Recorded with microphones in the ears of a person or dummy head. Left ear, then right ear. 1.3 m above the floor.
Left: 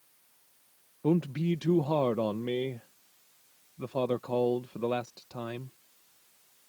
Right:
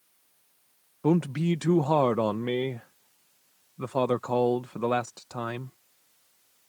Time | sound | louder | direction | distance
1.0 | a man speaking | right 3 dB | 40° right (ahead or behind) | ?